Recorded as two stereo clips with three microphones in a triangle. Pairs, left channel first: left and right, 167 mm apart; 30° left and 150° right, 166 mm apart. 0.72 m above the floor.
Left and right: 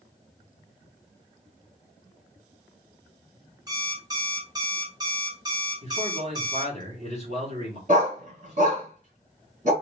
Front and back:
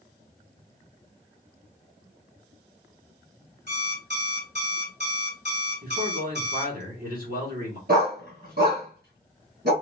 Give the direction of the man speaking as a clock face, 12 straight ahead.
5 o'clock.